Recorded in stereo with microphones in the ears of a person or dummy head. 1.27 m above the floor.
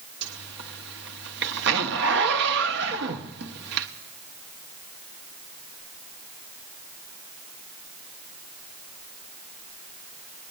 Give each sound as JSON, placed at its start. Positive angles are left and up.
{"t": 0.2, "sound": "a zipper", "side_deg": -55, "distance_m": 0.9}